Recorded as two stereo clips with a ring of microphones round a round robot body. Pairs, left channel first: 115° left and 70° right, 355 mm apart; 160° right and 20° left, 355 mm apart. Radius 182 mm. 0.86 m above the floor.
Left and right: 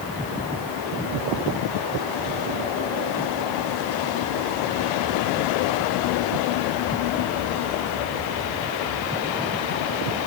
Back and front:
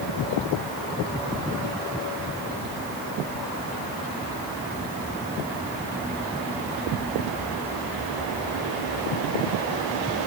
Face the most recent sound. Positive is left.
No sound to turn to.